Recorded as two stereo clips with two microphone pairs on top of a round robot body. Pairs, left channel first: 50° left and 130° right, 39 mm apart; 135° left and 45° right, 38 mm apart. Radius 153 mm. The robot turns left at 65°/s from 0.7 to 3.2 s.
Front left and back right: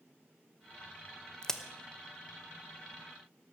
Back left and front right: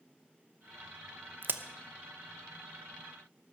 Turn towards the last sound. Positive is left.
turn(degrees=-125)